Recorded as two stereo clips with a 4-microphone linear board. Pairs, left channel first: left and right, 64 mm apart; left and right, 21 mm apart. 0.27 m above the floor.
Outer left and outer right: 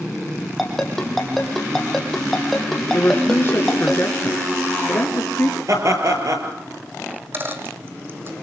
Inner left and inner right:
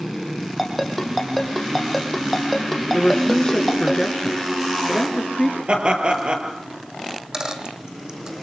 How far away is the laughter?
About 5.5 m.